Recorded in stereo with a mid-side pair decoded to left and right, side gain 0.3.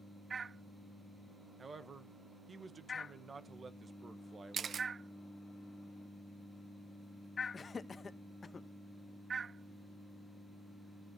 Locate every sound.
1.6 s a man speaking: 50° right, 1.3 m
4.5 s a camera shutter: 65° right, 0.5 m
7.5 s laughter: 50° left, 1.2 m